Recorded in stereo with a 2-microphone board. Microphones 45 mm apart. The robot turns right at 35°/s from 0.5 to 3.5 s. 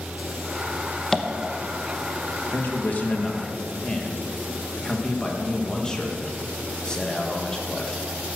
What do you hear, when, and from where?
1.1 s tapping: 10° left (ahead or behind), 0.9 m; by 1.3 s 15° left (ahead or behind), 0.9 m
2.5 s a man speaking: 125° left, 1.7 m; by 8.0 s 160° left, 1.7 m